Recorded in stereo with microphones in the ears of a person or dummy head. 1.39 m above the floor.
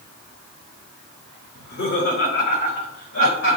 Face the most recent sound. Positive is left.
turn(degrees=85)